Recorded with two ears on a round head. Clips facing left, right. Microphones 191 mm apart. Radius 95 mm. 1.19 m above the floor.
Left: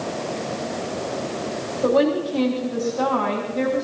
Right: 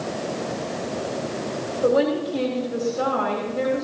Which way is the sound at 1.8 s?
10° right (ahead or behind).